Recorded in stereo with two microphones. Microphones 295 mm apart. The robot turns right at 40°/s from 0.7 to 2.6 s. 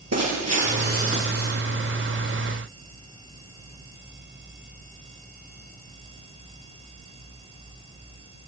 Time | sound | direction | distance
0.1 | breaking glass | 60° right | 7.5 m